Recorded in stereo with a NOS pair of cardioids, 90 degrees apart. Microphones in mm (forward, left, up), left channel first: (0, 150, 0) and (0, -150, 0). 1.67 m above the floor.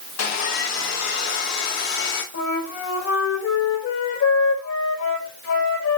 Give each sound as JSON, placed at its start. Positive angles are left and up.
{"t": 0.2, "sound": "sawing", "azimuth_deg": 65, "distance_m": 2.5}
{"t": 2.3, "sound": "a flute", "azimuth_deg": 65, "distance_m": 4.0}